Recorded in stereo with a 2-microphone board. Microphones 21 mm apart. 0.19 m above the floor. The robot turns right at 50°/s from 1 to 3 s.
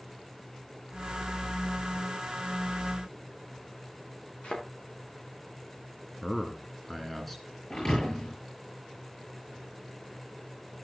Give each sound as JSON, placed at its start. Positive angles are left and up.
{"t": 4.4, "sound": "a thud", "side_deg": 70, "distance_m": 6.5}
{"t": 6.2, "sound": "a man speaking", "side_deg": 10, "distance_m": 2.0}
{"t": 7.7, "sound": "a thud", "side_deg": 35, "distance_m": 7.0}